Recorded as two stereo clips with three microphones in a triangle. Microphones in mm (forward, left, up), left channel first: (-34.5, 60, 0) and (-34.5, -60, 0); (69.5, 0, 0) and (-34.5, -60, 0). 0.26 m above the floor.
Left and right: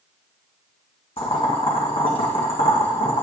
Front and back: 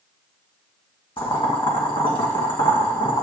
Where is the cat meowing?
I don't hear a cat meowing.